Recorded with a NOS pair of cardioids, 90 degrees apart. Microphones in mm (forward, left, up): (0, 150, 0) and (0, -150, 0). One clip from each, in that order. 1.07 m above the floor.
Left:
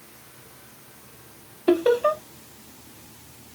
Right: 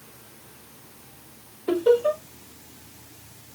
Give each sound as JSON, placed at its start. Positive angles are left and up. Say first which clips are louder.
{"t": 1.7, "sound": "laughter", "louder": "even", "azimuth_deg": 45, "distance_m": 1.2}